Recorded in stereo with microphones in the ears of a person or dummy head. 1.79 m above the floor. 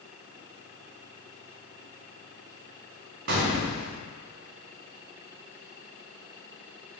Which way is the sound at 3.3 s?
65° right (ahead or behind).